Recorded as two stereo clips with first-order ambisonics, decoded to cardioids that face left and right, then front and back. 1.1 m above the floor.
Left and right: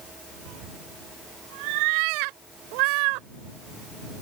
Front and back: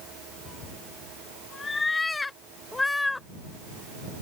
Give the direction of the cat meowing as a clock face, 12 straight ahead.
2 o'clock.